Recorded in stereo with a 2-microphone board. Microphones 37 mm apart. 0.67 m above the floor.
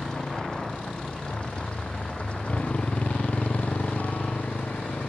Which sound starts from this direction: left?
A motorcycle, at 0.0 s.